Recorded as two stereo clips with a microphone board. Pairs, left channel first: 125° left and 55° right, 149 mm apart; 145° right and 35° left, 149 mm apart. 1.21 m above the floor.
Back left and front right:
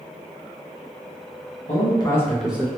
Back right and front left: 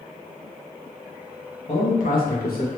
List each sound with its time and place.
1.7 s a man speaking: 170° left, 1.2 m; by 2.7 s 130° right, 1.1 m